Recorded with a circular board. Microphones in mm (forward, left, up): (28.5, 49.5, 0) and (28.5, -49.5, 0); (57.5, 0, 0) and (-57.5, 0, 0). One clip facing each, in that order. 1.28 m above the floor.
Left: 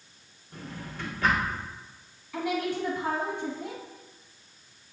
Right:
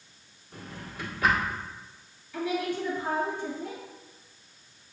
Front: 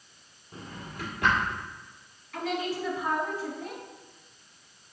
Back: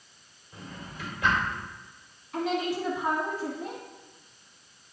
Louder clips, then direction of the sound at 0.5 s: Left 1 dB, front 1 dB; 5° right.